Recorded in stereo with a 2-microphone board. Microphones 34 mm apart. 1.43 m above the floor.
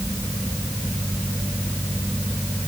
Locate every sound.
Only background noise.